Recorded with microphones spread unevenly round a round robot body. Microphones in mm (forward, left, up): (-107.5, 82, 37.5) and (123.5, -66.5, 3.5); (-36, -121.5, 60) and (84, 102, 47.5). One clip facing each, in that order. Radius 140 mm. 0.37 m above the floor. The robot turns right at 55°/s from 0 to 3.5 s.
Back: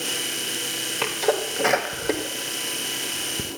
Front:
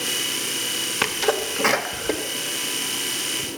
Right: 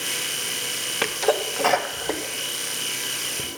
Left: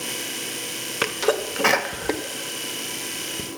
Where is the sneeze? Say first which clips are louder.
Even, even; 5° right, 1.1 m; by 3.4 s 125° left, 1.1 m.